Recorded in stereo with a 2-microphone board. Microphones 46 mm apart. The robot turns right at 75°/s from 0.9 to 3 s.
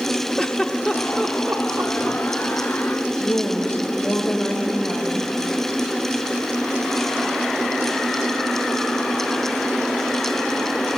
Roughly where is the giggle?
Centre.